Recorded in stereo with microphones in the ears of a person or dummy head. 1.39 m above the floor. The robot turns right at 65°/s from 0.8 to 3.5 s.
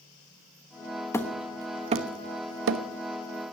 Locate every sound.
1.1 s hammering: 15° left (ahead or behind), 1.1 m; by 2.8 s 65° right (ahead or behind), 1.1 m